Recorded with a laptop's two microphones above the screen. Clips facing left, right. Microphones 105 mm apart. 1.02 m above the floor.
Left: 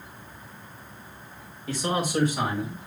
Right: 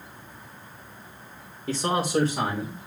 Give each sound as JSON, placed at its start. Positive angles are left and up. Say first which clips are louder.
{"t": 1.7, "sound": "a man speaking", "louder": "right 2 dB", "side_deg": -40, "distance_m": 2.5}